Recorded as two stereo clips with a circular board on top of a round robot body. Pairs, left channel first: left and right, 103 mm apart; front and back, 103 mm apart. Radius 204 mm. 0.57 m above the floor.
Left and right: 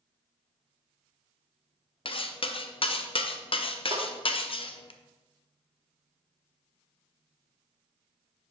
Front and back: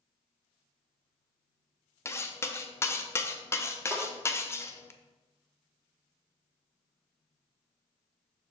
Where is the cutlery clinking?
65° left, 0.7 m.